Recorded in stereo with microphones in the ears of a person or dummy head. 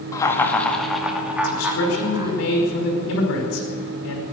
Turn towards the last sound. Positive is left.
turn(degrees=70)  # may be behind; listen again after turning